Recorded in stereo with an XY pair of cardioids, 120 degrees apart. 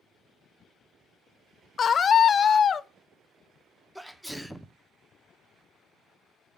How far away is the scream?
About 0.6 m.